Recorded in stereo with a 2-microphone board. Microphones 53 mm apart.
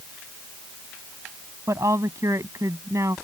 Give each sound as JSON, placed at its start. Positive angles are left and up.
{"t": 1.7, "sound": "a woman speaking", "side_deg": -75}